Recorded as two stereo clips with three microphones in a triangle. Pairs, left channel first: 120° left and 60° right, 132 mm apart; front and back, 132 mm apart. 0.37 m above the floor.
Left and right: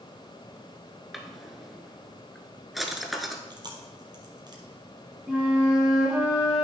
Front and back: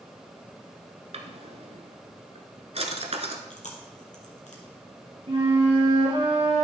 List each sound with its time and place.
1.1 s a drawer: 150° right, 1.1 m
3.5 s chewing: 5° right, 1.9 m
5.3 s a flute: 135° right, 4 m